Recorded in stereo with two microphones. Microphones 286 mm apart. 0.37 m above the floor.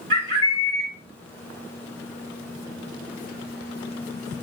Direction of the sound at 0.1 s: 45° right (ahead or behind).